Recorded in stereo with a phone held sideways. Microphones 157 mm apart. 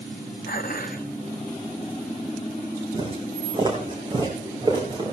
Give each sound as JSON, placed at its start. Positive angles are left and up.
{"t": 0.5, "sound": "dishes clattering", "side_deg": 70, "distance_m": 0.9}
{"t": 2.9, "sound": "footsteps", "side_deg": -35, "distance_m": 3.5}